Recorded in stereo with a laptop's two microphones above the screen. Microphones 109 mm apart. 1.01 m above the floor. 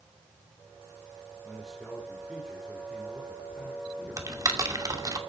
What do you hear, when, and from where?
1.4 s a man speaking: centre (ahead or behind), 4 m
4.2 s typing on a keyboard: 35° right (ahead or behind), 2.5 m